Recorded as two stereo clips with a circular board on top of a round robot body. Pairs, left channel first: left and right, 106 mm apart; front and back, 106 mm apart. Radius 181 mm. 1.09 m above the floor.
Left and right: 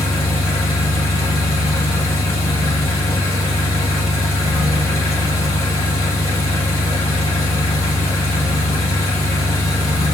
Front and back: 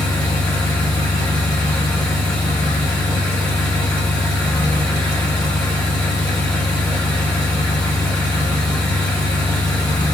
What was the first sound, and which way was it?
An engine running, 70° left.